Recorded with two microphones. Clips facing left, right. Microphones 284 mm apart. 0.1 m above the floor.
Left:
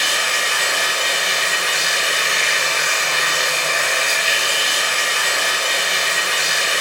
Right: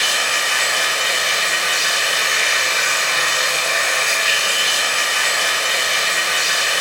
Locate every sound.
0.0 s running water: 40° left (ahead or behind), 1.2 m